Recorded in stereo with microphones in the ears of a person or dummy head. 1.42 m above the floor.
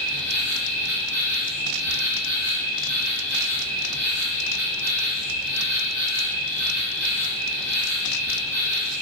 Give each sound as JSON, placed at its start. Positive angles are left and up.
{"t": 0.0, "sound": "an insect", "side_deg": -50, "distance_m": 1.3}